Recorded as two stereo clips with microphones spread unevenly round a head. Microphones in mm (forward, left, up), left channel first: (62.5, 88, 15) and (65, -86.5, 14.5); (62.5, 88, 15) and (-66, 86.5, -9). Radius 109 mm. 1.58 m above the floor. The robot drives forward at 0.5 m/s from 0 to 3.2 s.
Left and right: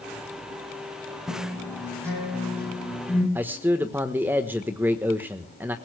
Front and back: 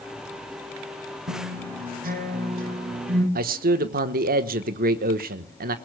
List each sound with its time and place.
1.3 s a guitar: 170° right, 7.5 m
3.4 s a man speaking: 170° right, 1.1 m